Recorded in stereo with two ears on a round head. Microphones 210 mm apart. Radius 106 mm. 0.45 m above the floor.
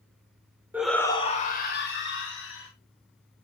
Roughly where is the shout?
Centre.